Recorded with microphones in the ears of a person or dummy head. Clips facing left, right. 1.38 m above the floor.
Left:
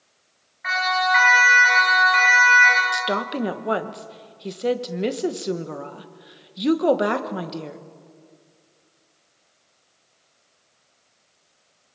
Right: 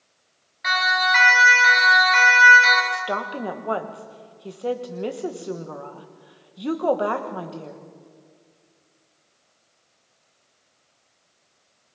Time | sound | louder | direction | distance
0.6 | a siren | left 2 dB | 55° right (ahead or behind) | 8.5 m
2.9 | a woman speaking | left 3 dB | 25° left (ahead or behind) | 1.1 m